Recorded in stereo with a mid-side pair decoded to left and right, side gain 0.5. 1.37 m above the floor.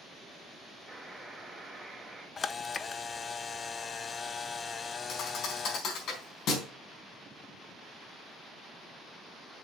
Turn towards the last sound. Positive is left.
turn(degrees=65)